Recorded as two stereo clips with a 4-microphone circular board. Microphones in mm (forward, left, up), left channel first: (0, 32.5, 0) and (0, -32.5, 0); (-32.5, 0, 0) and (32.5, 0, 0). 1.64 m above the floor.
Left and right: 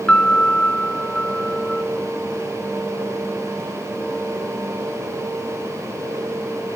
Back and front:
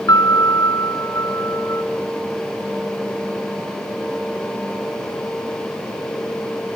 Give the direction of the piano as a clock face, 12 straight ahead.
7 o'clock.